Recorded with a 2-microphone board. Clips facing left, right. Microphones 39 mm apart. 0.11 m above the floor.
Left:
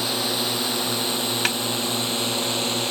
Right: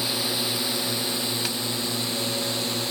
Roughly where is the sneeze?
I don't hear a sneeze.